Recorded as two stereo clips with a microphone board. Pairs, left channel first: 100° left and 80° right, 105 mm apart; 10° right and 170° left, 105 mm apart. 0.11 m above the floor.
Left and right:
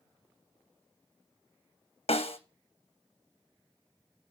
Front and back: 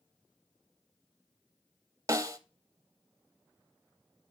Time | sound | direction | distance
2.1 | a snare drum | 115° left | 0.6 m